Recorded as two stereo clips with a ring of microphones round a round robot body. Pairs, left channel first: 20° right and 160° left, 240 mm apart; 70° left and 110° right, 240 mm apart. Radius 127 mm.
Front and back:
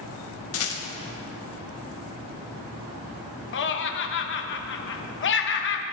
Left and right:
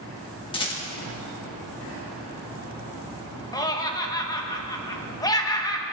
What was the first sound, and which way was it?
A rattle, straight ahead.